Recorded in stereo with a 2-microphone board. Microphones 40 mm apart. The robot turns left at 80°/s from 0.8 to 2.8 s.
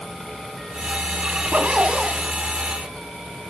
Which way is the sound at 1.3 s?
95° right.